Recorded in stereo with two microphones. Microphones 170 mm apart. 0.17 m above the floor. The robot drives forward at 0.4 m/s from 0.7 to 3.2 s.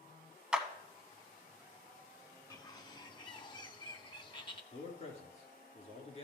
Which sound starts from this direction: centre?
A clap, at 0.5 s.